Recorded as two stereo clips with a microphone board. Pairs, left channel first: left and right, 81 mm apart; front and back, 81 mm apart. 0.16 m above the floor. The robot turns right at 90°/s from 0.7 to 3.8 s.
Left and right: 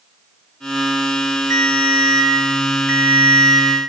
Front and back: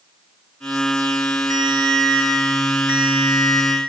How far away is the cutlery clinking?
No cutlery clinking in this recording.